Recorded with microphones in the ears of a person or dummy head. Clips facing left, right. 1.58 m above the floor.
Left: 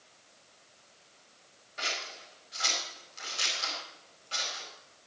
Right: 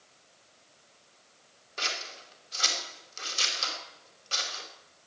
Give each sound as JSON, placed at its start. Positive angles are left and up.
{"t": 1.8, "sound": "scissors", "side_deg": -70, "distance_m": 4.5}